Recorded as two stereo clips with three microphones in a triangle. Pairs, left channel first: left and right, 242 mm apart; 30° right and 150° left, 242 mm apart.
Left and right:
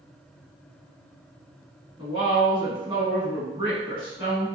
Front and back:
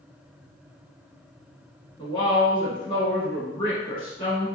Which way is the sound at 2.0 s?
60° right.